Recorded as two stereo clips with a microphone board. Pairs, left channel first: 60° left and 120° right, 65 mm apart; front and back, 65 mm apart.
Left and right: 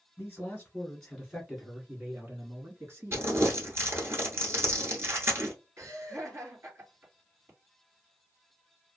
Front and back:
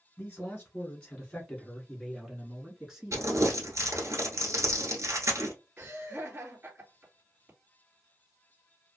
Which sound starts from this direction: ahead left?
A man speaking, at 0.2 s.